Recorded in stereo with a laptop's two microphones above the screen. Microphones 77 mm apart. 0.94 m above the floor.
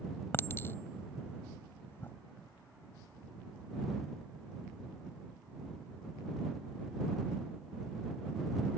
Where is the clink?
30° left (ahead or behind).